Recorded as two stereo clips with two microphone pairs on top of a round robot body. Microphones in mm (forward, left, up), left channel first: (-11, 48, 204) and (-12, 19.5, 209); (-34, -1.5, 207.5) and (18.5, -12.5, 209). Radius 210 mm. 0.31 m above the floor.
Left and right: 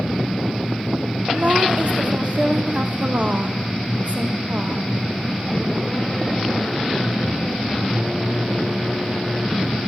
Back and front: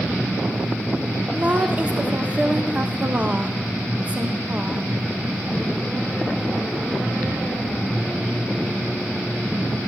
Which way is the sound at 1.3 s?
65° right.